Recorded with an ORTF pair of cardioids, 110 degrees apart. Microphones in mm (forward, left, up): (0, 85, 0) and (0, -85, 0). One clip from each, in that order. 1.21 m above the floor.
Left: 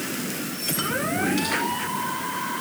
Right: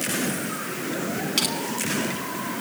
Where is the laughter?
No laughter in this recording.